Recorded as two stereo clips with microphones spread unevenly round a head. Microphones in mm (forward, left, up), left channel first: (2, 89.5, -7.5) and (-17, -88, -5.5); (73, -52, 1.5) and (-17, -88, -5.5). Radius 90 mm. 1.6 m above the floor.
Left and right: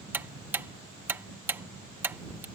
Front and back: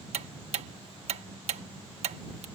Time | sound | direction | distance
0.1 | ticking | 175° right | ?